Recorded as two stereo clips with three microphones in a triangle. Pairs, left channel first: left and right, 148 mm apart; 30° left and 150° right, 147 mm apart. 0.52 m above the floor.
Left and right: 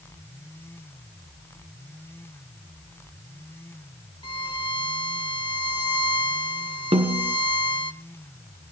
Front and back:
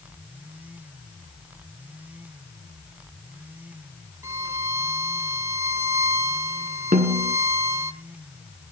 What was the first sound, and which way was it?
A violin, 140° left.